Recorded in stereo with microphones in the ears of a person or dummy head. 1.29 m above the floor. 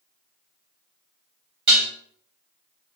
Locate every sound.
1.7 s dishes clattering: 35° right (ahead or behind), 2.0 m